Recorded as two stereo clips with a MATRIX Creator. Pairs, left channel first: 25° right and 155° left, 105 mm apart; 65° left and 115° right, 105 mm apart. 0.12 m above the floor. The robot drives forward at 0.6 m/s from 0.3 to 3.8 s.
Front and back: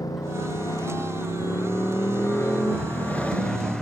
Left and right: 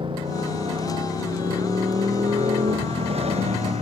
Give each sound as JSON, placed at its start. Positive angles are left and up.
{"t": 0.0, "sound": "a motorcycle", "azimuth_deg": -75}